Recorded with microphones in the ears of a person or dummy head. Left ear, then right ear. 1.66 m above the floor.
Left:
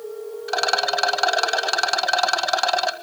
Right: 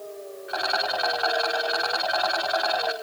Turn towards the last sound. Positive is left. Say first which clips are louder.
# left 4 dB
turn(degrees=85)